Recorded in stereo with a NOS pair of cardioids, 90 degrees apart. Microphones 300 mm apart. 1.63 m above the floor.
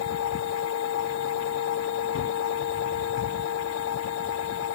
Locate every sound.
0.0 s a machine running: 65° left
2.1 s a gunshot: 45° left